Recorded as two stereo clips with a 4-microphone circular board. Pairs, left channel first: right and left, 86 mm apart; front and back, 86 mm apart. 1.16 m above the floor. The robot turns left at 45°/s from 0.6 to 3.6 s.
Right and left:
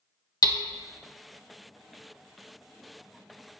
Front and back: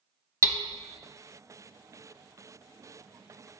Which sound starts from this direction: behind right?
Hammering, at 0.4 s.